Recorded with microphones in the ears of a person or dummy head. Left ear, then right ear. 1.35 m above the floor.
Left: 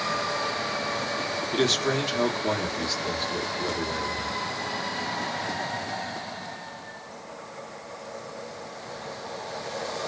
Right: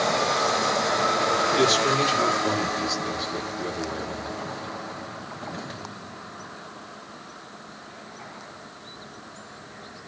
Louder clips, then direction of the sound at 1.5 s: Even; centre (ahead or behind).